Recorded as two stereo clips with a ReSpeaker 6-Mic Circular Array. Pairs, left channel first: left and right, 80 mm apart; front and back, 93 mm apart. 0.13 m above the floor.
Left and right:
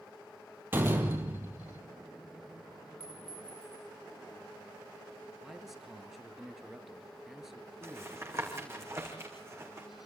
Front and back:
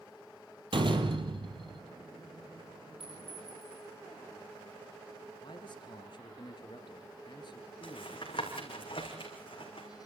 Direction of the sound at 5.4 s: Straight ahead.